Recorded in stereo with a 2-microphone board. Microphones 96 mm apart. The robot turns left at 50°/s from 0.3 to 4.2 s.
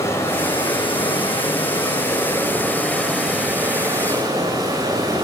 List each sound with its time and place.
0.0 s running water: 140° left, 1.8 m; by 5.2 s 55° right, 1.8 m